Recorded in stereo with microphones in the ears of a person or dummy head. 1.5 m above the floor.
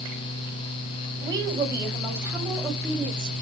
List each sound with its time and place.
1.2 s a woman speaking: 25° right (ahead or behind), 7.5 m; by 3.3 s centre (ahead or behind), 8 m